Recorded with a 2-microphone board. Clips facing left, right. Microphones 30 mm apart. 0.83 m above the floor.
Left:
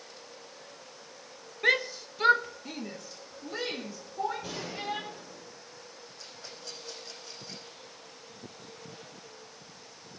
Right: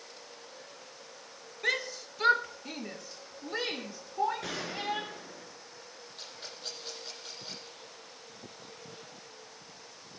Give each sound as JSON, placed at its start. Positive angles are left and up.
{"t": 1.6, "sound": "a shout", "side_deg": 15, "distance_m": 1.2}
{"t": 4.4, "sound": "a gunshot", "side_deg": -80, "distance_m": 5.5}
{"t": 6.2, "sound": "a rattle", "side_deg": -85, "distance_m": 10.0}